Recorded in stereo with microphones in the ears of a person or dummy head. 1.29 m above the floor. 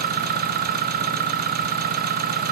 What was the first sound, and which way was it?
An engine running, 50° right (ahead or behind).